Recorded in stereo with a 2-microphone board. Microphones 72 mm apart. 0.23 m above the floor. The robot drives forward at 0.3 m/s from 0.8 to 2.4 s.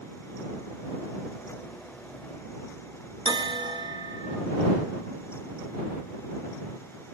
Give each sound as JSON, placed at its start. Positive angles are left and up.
{"t": 3.2, "sound": "a bell", "side_deg": -80, "distance_m": 0.9}